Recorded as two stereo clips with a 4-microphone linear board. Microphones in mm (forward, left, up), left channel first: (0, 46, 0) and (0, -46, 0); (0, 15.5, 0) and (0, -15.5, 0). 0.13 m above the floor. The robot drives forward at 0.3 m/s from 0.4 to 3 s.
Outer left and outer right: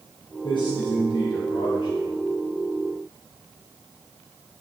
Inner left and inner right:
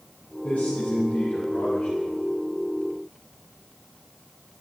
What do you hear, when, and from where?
0.4 s a man speaking: 55° left (ahead or behind), 3 m